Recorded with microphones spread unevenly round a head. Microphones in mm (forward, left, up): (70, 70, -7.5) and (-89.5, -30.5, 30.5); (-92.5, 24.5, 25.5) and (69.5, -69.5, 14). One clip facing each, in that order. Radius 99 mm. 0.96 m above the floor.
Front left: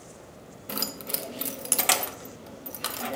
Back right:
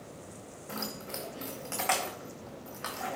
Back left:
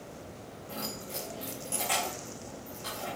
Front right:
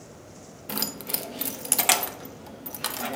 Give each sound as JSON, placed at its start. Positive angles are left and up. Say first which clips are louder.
{"t": 0.7, "sound": "keys jangling", "louder": "front left 4 dB, front right 5 dB", "azimuth_deg": -20, "distance_m": 0.7}